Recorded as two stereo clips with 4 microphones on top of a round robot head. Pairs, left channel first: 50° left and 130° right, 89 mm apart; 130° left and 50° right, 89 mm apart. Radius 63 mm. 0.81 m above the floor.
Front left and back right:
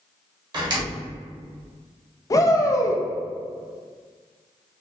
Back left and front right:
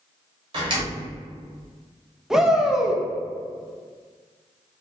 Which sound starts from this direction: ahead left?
A shout, at 2.3 s.